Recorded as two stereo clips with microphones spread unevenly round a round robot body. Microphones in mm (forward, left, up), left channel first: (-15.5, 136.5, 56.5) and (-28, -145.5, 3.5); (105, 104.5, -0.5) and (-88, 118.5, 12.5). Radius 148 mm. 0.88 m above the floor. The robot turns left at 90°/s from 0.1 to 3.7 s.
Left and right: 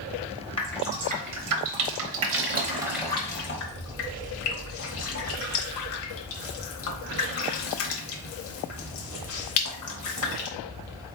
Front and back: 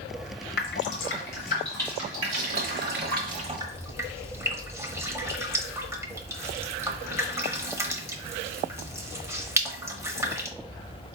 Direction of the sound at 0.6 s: 25° left.